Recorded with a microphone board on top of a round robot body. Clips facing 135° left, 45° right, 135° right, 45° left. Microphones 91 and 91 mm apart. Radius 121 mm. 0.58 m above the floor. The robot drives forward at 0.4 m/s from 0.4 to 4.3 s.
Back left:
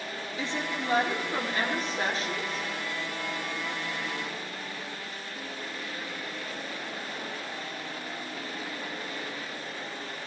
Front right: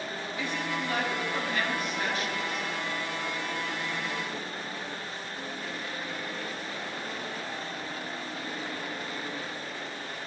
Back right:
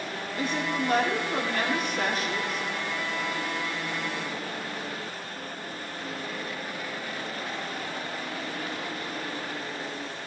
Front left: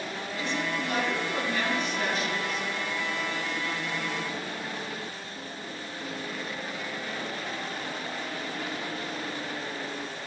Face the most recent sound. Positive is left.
turn(degrees=-175)